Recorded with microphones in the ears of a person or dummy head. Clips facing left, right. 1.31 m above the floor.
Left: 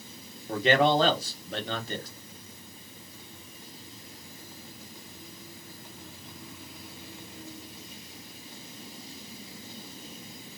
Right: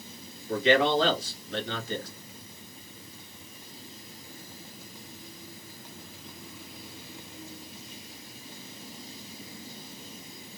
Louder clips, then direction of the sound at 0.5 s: Even; 40° left (ahead or behind).